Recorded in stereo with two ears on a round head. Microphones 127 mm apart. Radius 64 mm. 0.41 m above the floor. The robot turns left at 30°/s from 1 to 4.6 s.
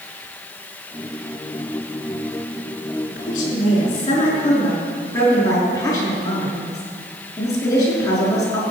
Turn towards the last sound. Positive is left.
turn(degrees=25)